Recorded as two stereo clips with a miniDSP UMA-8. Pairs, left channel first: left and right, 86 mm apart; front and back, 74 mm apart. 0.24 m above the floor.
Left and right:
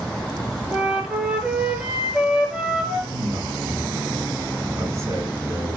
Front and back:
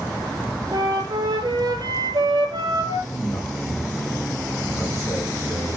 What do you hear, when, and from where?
0.7 s a flute: 170° right, 1.4 m
3.1 s a man speaking: 45° right, 3 m